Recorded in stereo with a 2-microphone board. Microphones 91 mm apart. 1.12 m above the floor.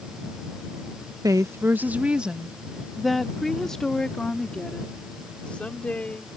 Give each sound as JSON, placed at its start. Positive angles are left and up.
{"t": 1.2, "sound": "a woman speaking", "side_deg": -40}